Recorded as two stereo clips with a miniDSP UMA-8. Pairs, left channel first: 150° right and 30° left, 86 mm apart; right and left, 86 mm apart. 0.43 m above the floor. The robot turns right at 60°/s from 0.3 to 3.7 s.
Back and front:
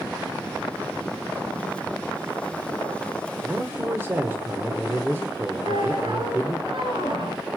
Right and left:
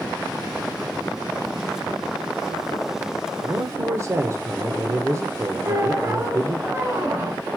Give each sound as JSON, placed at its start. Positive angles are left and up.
{"t": 3.4, "sound": "a man speaking", "azimuth_deg": 55, "distance_m": 0.9}
{"t": 5.6, "sound": "a squeak", "azimuth_deg": 35, "distance_m": 2.5}